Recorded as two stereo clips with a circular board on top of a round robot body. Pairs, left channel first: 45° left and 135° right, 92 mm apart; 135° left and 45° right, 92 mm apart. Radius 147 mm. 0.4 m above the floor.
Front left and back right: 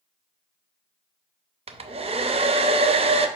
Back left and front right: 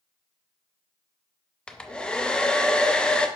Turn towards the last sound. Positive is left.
turn(degrees=-145)